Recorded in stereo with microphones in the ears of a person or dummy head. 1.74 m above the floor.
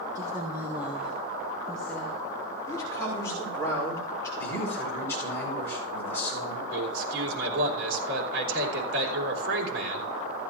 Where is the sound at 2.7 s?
15° left (ahead or behind), 4.5 m.